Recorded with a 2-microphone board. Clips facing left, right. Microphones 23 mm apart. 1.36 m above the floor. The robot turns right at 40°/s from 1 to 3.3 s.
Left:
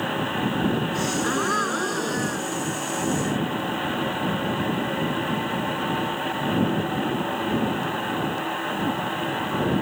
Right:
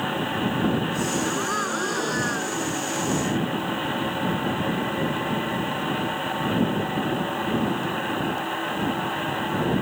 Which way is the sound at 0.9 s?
145° left.